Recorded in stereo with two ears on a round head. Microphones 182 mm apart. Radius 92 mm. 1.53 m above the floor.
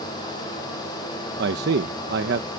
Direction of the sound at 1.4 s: 55° right (ahead or behind).